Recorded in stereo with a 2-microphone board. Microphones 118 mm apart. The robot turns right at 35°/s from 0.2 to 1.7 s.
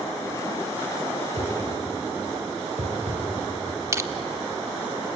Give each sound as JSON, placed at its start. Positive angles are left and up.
{"t": 1.4, "sound": "a whoosh", "side_deg": -70, "distance_m": 5.5}
{"t": 3.9, "sound": "crushing", "side_deg": -25, "distance_m": 0.8}